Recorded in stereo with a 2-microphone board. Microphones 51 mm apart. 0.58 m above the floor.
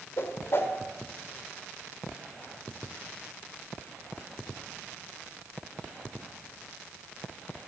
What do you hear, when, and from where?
0.2 s a whoosh: 55° left (ahead or behind), 1.5 m